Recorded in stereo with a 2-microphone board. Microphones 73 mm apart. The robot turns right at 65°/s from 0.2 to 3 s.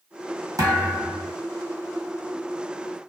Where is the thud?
65° right, 1.5 m; by 1.3 s 15° right, 1.5 m.